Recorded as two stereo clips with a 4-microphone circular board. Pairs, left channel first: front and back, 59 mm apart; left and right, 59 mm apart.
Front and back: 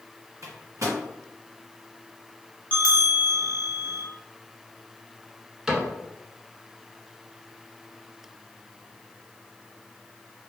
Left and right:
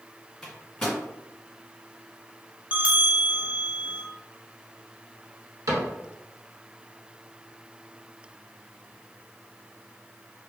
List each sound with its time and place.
0.4 s a microwave: 175° left, 1.4 m
2.7 s a bell: 40° right, 0.5 m
5.7 s a cupboard door: 100° right, 1.1 m